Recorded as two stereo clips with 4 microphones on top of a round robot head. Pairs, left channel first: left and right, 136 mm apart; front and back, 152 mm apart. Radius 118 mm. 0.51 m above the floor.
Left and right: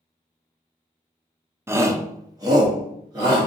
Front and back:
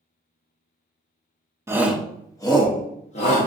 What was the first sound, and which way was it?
A shout, 140° right.